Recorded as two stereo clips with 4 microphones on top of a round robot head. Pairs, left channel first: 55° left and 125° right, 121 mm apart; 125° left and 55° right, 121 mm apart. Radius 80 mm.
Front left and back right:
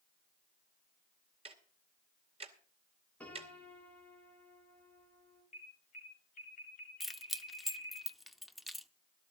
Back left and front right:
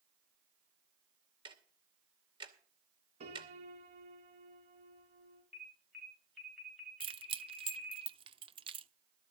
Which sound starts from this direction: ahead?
A piano, at 3.2 s.